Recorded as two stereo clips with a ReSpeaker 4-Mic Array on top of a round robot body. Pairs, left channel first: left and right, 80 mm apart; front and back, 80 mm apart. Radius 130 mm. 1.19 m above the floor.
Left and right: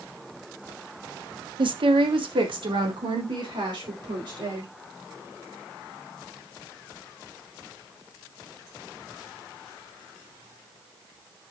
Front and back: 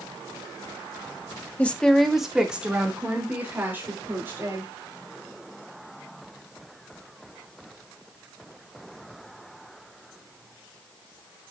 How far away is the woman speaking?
About 1.4 m.